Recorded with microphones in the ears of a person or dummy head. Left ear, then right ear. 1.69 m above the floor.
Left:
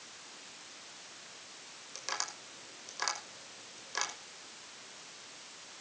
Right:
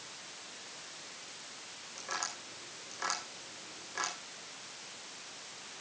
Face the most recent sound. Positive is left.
turn(degrees=80)